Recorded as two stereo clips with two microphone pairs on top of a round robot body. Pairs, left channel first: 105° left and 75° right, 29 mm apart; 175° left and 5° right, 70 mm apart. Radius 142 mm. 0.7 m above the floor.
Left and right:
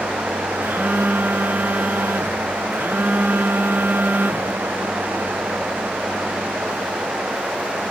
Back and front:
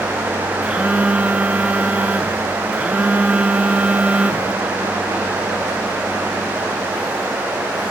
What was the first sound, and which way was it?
A phone buzzing, 75° right.